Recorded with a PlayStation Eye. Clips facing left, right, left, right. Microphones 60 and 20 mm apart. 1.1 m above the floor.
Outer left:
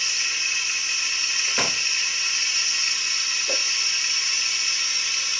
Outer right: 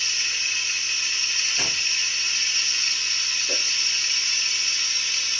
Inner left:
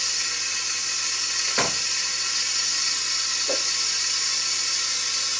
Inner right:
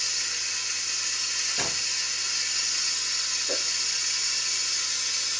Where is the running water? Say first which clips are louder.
Outer left 1 dB, inner left 3 dB; 15° left (ahead or behind), 0.9 m.